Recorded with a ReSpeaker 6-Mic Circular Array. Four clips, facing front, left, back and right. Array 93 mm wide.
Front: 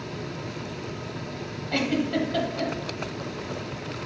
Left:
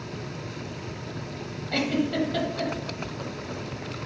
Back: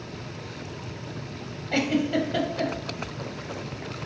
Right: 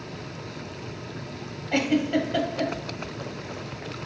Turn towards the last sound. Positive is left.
turn(degrees=-115)